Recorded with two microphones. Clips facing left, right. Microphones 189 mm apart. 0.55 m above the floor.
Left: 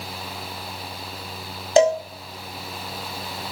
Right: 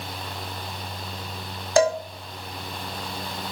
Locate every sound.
1.8 s a cowbell: 20° left (ahead or behind), 0.7 m